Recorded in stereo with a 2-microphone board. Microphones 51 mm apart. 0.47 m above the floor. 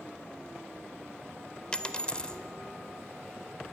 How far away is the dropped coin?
About 0.8 m.